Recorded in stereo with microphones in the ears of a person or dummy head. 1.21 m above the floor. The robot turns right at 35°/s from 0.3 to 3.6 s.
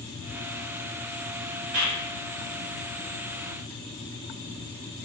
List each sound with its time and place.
1.7 s a clap: 85° right, 2 m